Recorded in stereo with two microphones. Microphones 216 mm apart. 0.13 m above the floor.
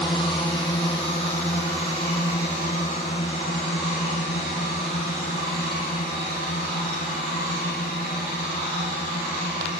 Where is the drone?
20° left (ahead or behind); by 9.8 s 40° left (ahead or behind).